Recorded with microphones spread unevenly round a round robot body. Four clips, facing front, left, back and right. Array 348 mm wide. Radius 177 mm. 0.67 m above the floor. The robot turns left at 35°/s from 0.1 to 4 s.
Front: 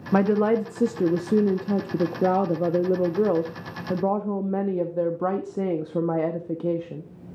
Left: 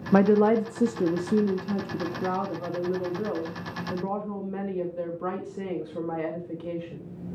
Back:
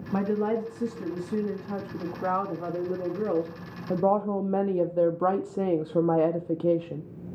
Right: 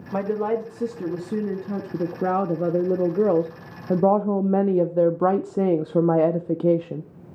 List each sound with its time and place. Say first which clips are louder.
0.1 s a woman speaking: left 4 dB, front 6 dB; 45° left, 0.9 m; by 7.0 s 95° right, 0.9 m